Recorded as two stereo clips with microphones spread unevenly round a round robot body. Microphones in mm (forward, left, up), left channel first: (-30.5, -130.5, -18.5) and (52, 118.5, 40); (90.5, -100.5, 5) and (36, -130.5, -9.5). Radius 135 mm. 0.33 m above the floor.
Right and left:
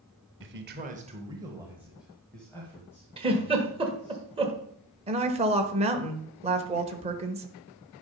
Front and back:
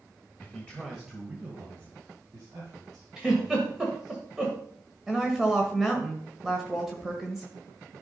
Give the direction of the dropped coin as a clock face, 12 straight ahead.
I don't hear a dropped coin.